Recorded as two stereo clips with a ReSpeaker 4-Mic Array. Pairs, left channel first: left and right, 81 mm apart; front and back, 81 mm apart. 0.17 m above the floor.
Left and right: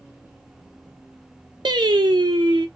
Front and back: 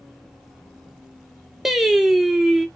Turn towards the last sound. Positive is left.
turn(degrees=-95)